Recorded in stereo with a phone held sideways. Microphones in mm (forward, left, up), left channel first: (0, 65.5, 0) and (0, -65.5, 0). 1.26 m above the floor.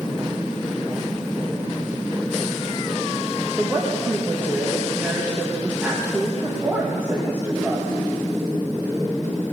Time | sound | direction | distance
3.6 | a woman speaking | 15° right (ahead or behind) | 1.6 m